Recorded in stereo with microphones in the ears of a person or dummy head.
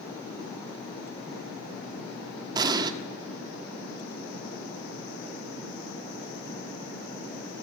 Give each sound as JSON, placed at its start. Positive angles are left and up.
{"t": 2.5, "sound": "an explosion", "side_deg": -25, "distance_m": 1.9}